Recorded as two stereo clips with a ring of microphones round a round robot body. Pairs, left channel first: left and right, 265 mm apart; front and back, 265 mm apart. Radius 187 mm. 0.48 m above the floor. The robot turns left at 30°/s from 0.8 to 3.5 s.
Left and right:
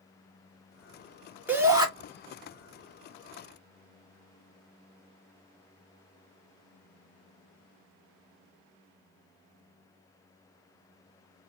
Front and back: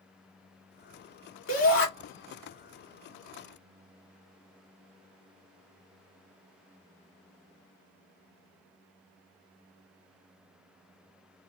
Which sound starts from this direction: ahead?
A shout, at 1.5 s.